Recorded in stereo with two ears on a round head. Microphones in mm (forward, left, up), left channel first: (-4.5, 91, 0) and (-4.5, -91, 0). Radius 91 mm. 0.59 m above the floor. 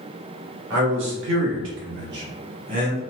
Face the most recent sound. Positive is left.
turn(degrees=-40)  # may be behind; listen again after turning